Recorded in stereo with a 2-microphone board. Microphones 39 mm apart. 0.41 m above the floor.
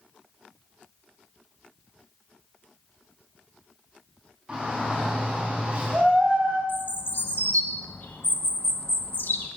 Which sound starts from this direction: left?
A bird, at 6.7 s.